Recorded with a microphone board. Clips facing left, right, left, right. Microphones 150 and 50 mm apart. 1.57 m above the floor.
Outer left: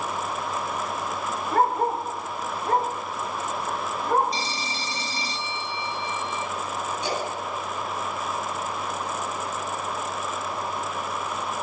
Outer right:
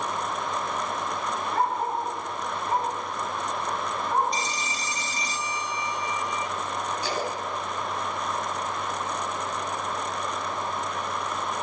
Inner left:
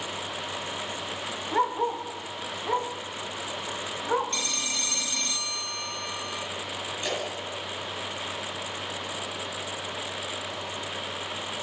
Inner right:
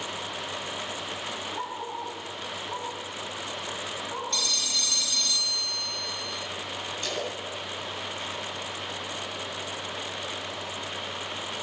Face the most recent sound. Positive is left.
turn(degrees=20)  # may be behind; listen again after turning